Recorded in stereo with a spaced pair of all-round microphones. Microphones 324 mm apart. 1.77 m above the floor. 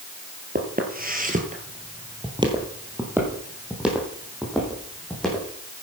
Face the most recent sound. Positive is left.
turn(degrees=0)  # may be behind; listen again after turning